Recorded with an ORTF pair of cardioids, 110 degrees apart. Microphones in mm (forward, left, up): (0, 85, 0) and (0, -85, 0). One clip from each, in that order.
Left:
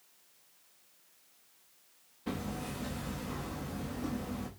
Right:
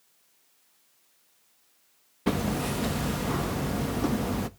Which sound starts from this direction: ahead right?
Hammering, at 2.3 s.